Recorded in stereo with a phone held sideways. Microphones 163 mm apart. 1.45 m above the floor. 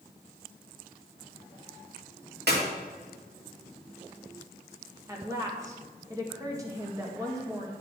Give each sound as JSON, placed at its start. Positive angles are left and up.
{"t": 2.5, "sound": "a clap", "side_deg": -90, "distance_m": 3.0}
{"t": 5.1, "sound": "a woman speaking", "side_deg": -20, "distance_m": 1.8}